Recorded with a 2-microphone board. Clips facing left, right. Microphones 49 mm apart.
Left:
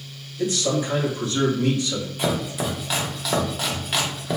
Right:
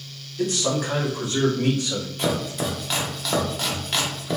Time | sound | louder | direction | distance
0.4 | a man speaking | left 1 dB | 60° right (ahead or behind) | 1.7 m
2.2 | chopping | even | 5° left (ahead or behind) | 0.7 m